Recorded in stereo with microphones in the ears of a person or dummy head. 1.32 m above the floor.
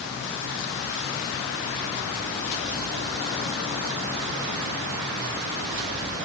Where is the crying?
No crying in this recording.